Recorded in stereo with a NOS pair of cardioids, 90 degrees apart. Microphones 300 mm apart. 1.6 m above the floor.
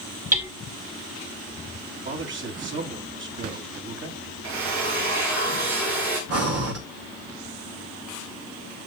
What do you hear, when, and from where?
0.3 s hammering: 25° right, 2.5 m
2.0 s a man speaking: 40° right, 3 m
4.4 s a drill: 65° right, 3 m
6.3 s breathing: 55° right, 2.5 m